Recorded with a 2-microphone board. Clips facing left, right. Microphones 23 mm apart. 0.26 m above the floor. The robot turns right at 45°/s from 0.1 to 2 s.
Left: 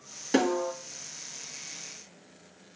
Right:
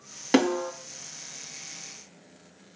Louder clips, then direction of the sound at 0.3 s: Right 2 dB; 35° right (ahead or behind).